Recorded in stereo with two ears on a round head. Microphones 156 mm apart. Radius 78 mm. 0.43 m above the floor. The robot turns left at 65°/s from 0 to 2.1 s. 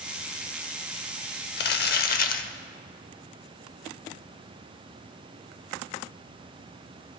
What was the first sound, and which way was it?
Crumpling, 95° left.